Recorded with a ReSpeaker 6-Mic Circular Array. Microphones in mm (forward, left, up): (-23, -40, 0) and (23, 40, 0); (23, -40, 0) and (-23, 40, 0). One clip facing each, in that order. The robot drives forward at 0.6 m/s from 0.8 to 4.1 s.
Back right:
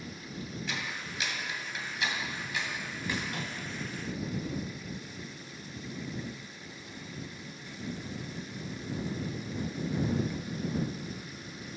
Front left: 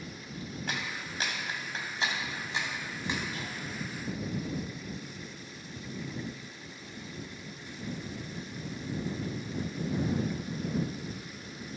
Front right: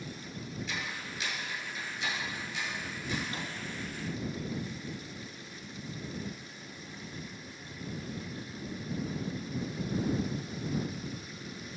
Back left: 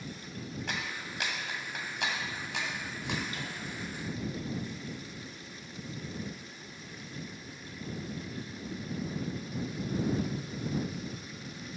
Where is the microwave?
110° right, 2.5 m; by 3.6 s 115° right, 2.5 m.